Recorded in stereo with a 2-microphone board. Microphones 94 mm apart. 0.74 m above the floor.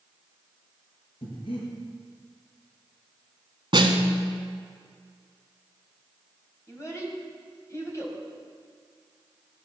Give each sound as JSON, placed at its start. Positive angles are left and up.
{"t": 1.2, "sound": "breathing", "side_deg": 70, "distance_m": 4.0}
{"t": 3.7, "sound": "a snare drum", "side_deg": -55, "distance_m": 1.4}
{"t": 6.7, "sound": "a child speaking", "side_deg": 30, "distance_m": 3.0}